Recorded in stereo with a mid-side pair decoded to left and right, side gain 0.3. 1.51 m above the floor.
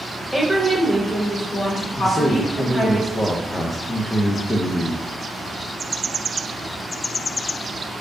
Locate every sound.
0.3 s a woman speaking: 5° left, 1.2 m; by 3.0 s 65° left, 2.5 m
2.0 s a man speaking: 35° left, 0.6 m